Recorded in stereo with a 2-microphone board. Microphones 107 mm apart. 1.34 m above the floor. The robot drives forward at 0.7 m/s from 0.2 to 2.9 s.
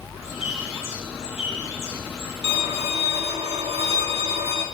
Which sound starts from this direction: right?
A violin, at 2.4 s.